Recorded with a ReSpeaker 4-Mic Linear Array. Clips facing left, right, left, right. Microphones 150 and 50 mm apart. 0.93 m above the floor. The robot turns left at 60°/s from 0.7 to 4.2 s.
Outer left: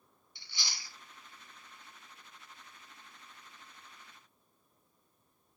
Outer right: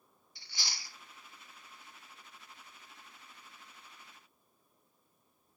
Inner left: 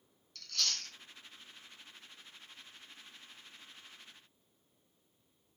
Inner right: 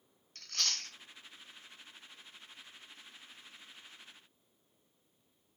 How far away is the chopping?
I don't hear chopping.